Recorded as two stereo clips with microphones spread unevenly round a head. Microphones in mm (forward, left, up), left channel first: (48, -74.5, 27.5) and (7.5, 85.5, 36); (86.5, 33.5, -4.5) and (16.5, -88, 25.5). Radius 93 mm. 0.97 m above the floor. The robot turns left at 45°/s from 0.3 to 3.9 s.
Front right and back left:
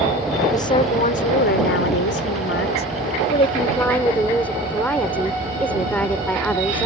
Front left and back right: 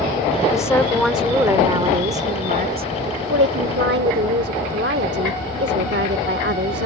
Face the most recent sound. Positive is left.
turn(degrees=-160)